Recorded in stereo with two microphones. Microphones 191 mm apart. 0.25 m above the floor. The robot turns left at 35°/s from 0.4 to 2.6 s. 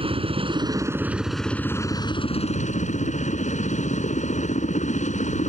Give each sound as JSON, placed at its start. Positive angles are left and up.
{"t": 0.0, "sound": "a helicopter", "azimuth_deg": -145}